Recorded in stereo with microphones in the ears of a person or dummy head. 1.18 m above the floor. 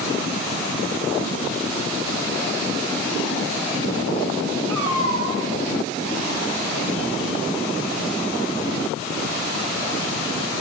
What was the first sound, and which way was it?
A cat meowing, 80° right.